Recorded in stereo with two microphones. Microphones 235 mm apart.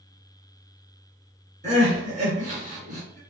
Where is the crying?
30° right (ahead or behind), 2 m.